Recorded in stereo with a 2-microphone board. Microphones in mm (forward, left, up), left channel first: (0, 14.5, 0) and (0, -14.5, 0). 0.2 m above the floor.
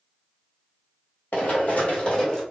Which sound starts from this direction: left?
Running footsteps, at 1.3 s.